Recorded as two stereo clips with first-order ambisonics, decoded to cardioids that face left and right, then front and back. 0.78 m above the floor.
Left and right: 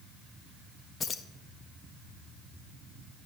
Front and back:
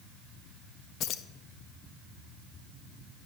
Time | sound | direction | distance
1.0 | keys jangling | 30° left | 0.5 m